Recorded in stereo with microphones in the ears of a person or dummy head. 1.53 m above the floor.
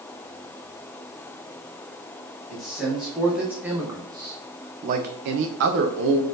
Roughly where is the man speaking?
Centre.